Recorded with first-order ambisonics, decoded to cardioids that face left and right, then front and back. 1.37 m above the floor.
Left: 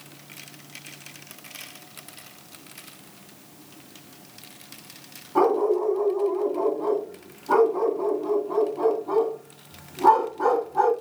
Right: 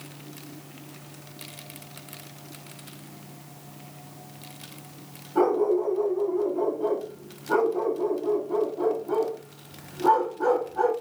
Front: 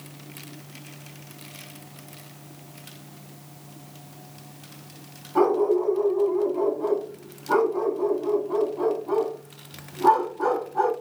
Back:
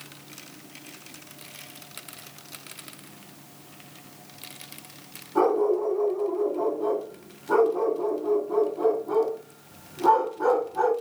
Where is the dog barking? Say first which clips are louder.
Left 2 dB, front 1 dB; 65° left, 1.8 m.